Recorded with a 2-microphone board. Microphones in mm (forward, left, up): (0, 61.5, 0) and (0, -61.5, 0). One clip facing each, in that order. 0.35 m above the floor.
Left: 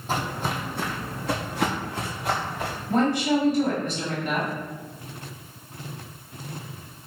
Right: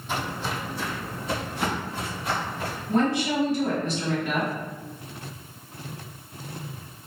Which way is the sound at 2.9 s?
55° left (ahead or behind).